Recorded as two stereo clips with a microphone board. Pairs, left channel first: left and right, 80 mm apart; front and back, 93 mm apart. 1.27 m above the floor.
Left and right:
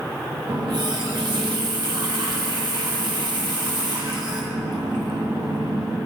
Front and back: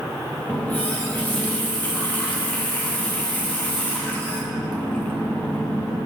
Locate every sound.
0.5 s a running tap: 70° right, 1.2 m